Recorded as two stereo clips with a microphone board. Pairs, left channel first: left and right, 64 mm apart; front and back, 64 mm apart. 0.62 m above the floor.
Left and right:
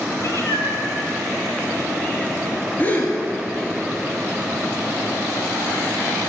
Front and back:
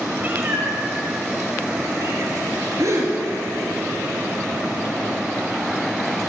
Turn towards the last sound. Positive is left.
turn(degrees=150)